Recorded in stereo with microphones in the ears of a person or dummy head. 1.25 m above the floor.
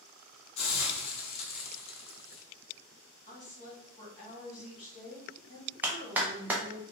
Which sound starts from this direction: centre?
A clap, at 5.8 s.